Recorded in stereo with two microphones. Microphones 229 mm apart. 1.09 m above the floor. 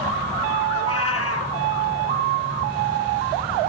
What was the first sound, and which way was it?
A cat meowing, 70° left (ahead or behind).